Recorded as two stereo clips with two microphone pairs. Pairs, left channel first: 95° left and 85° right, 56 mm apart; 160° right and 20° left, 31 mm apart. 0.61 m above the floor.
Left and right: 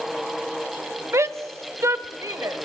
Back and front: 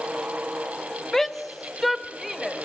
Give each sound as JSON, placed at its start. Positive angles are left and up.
{"t": 1.1, "sound": "a shout", "azimuth_deg": -85, "distance_m": 1.1}